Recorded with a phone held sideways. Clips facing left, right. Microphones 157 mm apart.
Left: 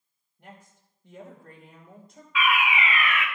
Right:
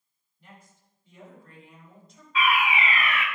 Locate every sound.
0.4 s a woman speaking: 75° left (ahead or behind), 3 m; by 2.2 s 55° left (ahead or behind), 3 m
2.4 s a fire alarm: 35° right (ahead or behind), 1.7 m